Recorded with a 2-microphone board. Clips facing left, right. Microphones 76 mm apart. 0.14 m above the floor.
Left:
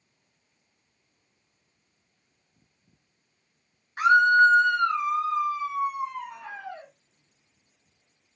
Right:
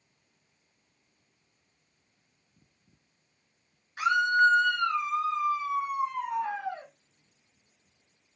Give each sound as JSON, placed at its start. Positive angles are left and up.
{"t": 4.0, "sound": "a scream", "side_deg": 40, "distance_m": 1.5}